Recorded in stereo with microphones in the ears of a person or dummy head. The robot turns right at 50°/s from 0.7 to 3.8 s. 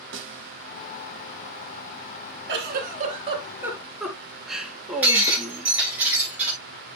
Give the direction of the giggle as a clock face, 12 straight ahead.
2 o'clock.